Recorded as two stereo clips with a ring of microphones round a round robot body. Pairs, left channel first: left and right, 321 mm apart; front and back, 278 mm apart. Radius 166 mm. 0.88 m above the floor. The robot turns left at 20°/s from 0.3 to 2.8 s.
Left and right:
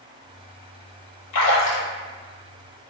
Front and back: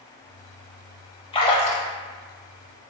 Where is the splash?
65° left, 0.8 m; by 1.9 s 55° left, 0.8 m.